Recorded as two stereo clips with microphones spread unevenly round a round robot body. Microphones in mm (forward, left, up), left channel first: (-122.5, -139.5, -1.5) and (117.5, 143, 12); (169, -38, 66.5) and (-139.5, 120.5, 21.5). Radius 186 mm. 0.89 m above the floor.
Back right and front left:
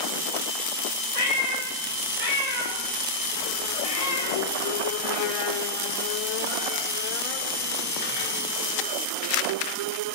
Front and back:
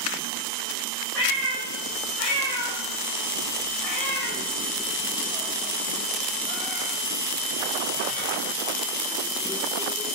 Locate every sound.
1.1 s a cat meowing: 60° right, 3 m; by 8.3 s 165° right, 1.8 m